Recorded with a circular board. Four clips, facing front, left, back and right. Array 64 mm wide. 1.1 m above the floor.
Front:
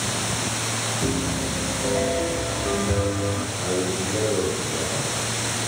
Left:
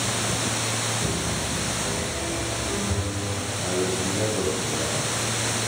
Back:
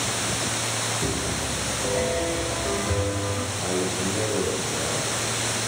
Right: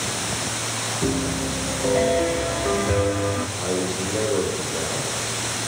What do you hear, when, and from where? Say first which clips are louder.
1.0 s a piano: right 4 dB, front 3 dB; 85° right, 1.3 m
3.6 s a man speaking: right 1 dB, front 1 dB; 70° right, 4.5 m